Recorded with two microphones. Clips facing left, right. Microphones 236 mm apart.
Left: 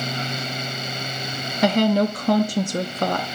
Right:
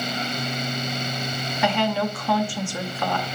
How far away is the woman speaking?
About 0.7 m.